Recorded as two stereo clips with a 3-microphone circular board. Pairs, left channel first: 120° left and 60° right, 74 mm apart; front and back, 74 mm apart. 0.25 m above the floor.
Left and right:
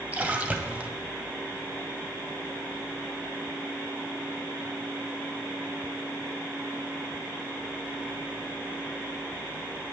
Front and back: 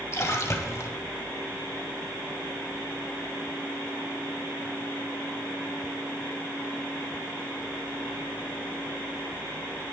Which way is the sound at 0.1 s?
Straight ahead.